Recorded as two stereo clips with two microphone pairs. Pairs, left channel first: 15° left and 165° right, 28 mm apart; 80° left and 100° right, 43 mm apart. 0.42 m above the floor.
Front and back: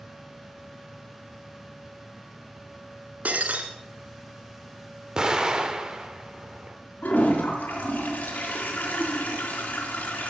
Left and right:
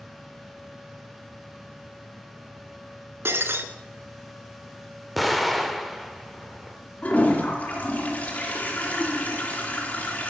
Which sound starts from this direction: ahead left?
A toilet flushing, at 7.0 s.